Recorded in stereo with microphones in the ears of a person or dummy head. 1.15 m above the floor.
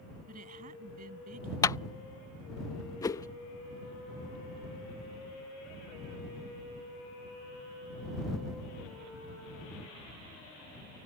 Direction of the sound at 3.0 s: 15° left (ahead or behind).